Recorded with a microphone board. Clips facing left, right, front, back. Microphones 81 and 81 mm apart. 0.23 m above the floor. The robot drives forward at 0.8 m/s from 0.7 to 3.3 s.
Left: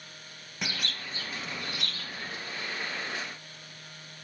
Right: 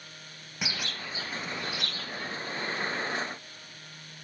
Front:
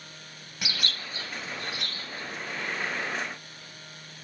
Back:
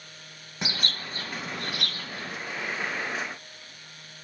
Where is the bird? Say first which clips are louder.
Right 1 dB, back 2 dB; 170° right, 0.7 m; by 2.4 s straight behind, 1.7 m.